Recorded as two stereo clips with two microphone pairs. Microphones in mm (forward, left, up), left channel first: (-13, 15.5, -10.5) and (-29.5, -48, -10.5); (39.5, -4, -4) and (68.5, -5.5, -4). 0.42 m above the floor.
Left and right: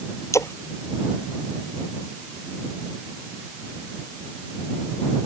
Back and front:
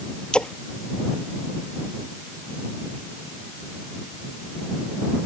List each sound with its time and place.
0.3 s a splash: 115° left